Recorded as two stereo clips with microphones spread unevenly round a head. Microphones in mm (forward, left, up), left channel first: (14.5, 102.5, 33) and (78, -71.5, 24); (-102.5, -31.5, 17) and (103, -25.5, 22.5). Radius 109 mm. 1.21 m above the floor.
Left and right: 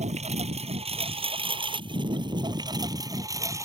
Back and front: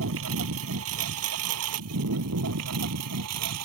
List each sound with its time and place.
0.0 s a lawn mower: 15° right; by 3.7 s 5° left